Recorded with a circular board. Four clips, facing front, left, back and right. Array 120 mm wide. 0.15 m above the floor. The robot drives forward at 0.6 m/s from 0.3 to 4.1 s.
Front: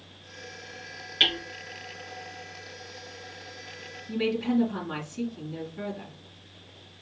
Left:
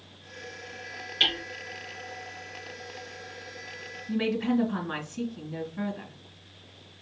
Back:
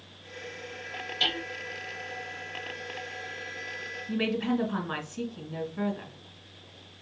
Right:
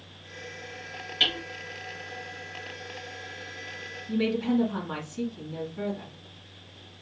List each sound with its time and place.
1.2 s hammering: straight ahead, 1.9 m
4.1 s a woman speaking: 150° left, 1.8 m